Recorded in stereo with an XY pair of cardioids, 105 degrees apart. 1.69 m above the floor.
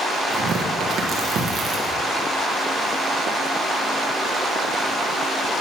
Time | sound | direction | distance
0.3 | tearing paper | 65° right | 1.6 m